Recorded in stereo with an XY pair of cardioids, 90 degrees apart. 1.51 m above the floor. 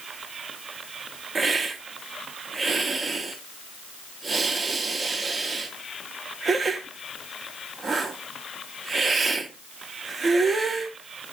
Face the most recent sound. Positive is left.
turn(degrees=-40)